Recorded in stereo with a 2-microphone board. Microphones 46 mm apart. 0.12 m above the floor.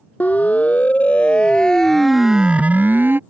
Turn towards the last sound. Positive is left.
turn(degrees=-50)  # may be behind; listen again after turning